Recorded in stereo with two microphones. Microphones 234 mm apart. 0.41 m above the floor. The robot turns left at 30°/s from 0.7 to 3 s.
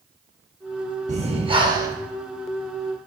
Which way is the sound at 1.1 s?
30° right (ahead or behind).